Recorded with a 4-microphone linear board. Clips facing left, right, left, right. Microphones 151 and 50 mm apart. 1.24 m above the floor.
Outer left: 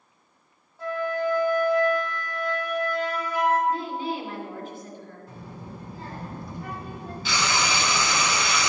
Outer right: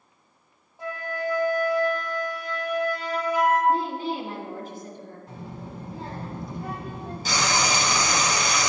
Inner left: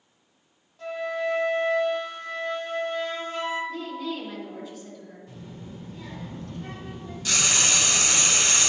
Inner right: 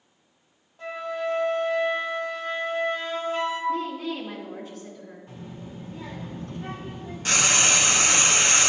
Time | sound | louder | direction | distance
0.8 | a flute | outer left 4 dB, inner left 1 dB | 20° right (ahead or behind) | 1.6 m
3.7 | a woman speaking | outer right 3 dB, inner right 4 dB | 40° right (ahead or behind) | 2 m
5.3 | a child speaking | outer right 2 dB, inner right 2 dB | 20° right (ahead or behind) | 1.6 m
7.2 | frying | outer right 2 dB, inner right 3 dB | 45° right (ahead or behind) | 0.7 m